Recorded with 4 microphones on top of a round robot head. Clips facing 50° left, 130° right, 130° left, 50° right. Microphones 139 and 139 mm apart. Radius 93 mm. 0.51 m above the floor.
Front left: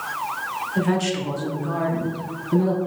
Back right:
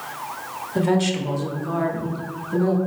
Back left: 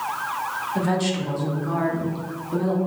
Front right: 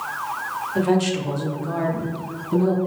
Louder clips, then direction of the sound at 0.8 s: Back right 2 dB, front right 4 dB; 115° right.